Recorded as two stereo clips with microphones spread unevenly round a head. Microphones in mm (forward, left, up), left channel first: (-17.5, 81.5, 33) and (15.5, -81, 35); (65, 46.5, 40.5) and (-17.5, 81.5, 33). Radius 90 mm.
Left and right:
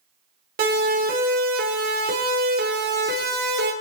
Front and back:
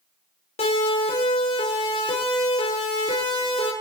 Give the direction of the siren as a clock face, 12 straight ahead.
1 o'clock.